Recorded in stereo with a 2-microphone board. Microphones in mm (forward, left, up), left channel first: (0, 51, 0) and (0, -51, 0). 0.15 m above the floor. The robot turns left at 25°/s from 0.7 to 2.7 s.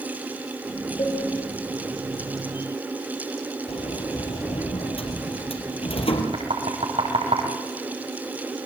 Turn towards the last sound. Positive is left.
turn(degrees=-75)  # may be behind; listen again after turning